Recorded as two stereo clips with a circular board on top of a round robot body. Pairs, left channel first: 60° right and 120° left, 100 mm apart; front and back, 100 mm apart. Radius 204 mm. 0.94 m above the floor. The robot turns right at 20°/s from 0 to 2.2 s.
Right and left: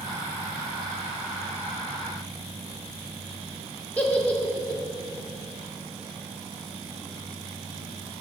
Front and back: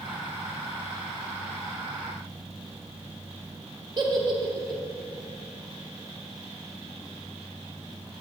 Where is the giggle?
135° right, 1.3 m.